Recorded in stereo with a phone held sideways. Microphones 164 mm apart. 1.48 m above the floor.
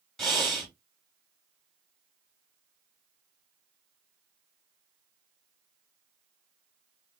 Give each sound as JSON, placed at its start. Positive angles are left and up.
{"t": 0.2, "sound": "breathing", "side_deg": 0, "distance_m": 2.5}